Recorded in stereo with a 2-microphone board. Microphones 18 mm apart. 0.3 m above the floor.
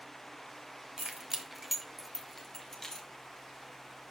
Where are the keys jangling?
40° right (ahead or behind), 1.1 m; by 3.1 s 30° left (ahead or behind), 1.7 m.